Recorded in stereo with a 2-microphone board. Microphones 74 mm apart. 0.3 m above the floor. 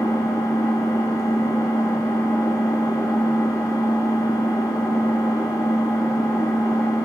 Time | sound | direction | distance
0.0 | an engine running | 50° left (ahead or behind) | 0.9 m